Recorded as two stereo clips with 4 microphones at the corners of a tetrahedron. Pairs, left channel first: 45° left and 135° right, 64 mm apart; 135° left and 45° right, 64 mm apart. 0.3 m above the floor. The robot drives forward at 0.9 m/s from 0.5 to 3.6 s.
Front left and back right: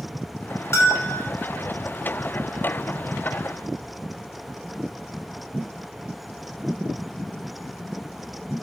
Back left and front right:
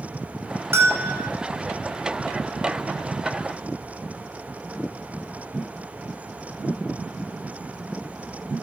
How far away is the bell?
About 5 m.